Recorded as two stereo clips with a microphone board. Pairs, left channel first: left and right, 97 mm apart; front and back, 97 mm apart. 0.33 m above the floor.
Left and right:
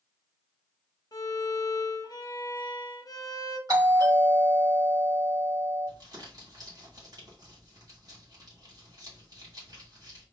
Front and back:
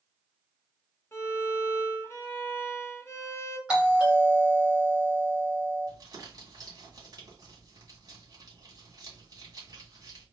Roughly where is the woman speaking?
No woman speaking in this recording.